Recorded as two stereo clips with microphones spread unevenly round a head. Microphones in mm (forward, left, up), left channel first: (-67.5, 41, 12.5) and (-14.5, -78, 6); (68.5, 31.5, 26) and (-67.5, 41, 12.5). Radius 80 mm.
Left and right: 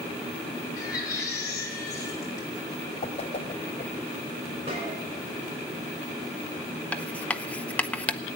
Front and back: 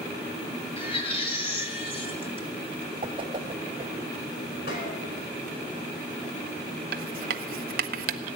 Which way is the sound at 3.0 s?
130° left.